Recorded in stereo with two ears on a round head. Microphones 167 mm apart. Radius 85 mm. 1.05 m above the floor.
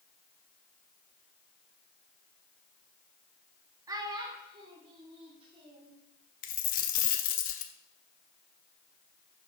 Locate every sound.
3.9 s a child speaking: 20° right (ahead or behind), 1.2 m; by 5.9 s 30° right (ahead or behind), 2 m
6.4 s a dropped coin: 50° left (ahead or behind), 0.7 m